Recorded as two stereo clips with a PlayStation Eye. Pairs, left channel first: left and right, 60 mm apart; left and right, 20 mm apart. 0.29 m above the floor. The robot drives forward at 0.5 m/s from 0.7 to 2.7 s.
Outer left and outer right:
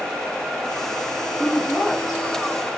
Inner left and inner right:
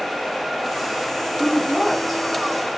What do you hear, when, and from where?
1.4 s a woman speaking: 5° left (ahead or behind), 1.3 m; by 2.2 s centre (ahead or behind), 1.5 m